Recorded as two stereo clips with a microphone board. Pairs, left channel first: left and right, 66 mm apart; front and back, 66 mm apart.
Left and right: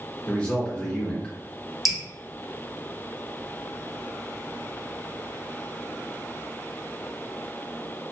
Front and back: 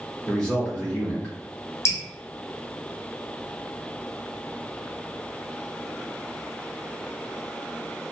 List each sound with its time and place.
0.3 s a man speaking: 45° left, 0.8 m
1.9 s dripping: straight ahead, 0.7 m